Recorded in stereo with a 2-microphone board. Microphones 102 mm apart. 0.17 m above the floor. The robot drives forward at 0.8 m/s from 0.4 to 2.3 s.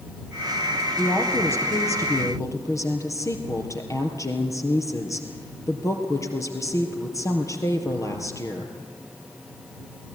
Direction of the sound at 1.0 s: 25° left (ahead or behind).